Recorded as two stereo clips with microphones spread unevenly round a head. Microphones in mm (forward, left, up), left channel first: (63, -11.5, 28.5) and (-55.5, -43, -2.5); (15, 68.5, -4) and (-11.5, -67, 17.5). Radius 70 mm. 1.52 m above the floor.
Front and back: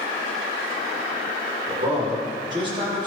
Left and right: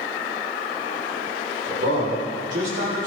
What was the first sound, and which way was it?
A man speaking, 120° right.